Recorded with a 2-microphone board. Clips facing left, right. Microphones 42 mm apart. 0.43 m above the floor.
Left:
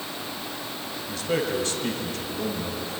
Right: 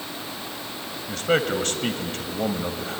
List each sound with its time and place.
1.1 s a man speaking: 60° right (ahead or behind), 1.9 m